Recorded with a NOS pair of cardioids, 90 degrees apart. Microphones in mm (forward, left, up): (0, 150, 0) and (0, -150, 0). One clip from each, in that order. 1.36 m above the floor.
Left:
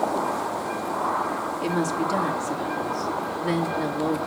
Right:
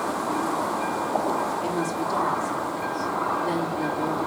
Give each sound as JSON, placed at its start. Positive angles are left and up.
{"t": 1.6, "sound": "a woman speaking", "azimuth_deg": 40, "distance_m": 3.0}